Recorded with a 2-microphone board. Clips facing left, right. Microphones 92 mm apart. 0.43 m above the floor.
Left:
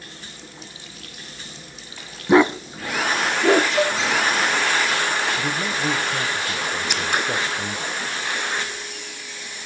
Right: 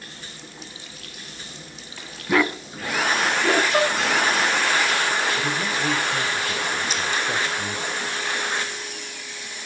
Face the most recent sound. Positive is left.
turn(degrees=75)  # may be behind; listen again after turning